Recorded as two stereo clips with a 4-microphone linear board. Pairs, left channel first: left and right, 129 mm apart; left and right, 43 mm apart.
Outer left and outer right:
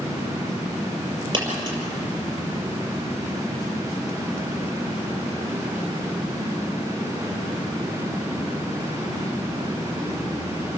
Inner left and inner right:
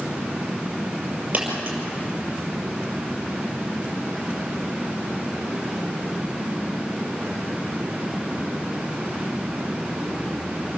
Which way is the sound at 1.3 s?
35° right (ahead or behind).